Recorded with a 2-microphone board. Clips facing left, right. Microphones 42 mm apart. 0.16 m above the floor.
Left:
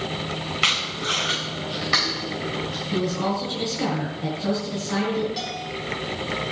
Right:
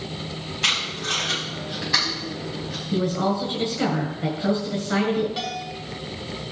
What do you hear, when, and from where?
0.6 s tape being pulled: 85° left, 5 m
2.9 s a woman speaking: 25° right (ahead or behind), 1.8 m
5.4 s a bell: 20° right (ahead or behind), 1.8 m